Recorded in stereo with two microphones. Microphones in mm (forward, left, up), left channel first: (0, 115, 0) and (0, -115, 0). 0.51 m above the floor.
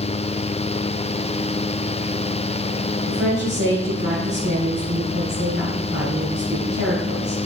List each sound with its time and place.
3.1 s a woman speaking: 70° right (ahead or behind), 3 m